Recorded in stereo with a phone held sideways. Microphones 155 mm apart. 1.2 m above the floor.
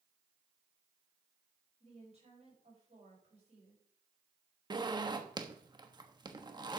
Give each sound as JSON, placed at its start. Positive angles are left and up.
{"t": 1.8, "sound": "a woman speaking", "side_deg": -45, "distance_m": 6.5}
{"t": 4.7, "sound": "a zipper", "side_deg": -25, "distance_m": 1.2}